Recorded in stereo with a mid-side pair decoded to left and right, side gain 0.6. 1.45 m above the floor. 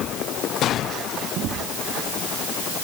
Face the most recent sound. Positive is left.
No sound to turn to.